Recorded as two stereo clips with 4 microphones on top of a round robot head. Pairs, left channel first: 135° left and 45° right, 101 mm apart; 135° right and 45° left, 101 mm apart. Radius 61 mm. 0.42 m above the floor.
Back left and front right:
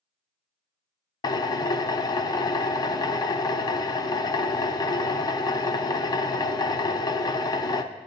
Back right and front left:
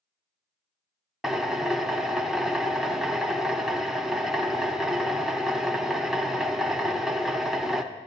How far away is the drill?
About 0.6 m.